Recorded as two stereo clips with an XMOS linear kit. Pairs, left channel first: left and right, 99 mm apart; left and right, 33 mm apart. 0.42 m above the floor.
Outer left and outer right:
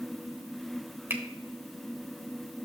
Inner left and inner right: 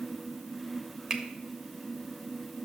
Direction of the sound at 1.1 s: 20° right (ahead or behind).